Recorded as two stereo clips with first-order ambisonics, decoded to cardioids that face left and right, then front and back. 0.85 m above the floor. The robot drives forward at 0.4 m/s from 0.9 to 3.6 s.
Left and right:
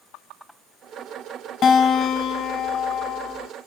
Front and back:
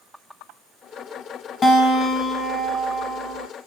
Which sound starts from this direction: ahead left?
A guitar, at 1.6 s.